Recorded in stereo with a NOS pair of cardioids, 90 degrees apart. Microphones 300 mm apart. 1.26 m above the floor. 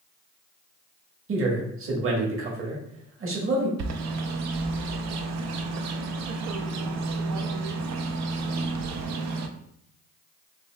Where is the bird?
65° right, 0.6 m.